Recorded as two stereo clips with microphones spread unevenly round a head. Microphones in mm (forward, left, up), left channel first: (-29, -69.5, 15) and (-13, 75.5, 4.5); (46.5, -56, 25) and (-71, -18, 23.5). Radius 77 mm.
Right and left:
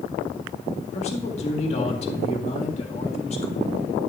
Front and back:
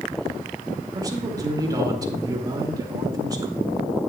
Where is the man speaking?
140° right, 2.0 m.